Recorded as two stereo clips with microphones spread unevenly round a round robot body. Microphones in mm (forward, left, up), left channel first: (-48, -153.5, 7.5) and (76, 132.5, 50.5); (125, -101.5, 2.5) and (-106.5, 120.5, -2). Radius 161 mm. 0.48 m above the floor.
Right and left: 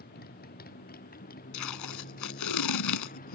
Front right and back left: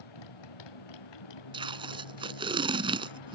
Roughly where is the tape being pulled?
Behind right.